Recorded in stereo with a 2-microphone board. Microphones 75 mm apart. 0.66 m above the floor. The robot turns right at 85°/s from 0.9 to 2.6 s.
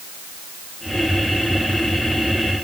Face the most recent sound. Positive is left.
No sound to turn to.